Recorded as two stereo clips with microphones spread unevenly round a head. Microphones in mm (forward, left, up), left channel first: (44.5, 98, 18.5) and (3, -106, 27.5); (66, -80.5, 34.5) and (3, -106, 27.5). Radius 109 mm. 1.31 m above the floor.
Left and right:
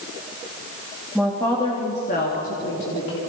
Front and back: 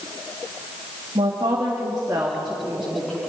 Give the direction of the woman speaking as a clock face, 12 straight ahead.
6 o'clock.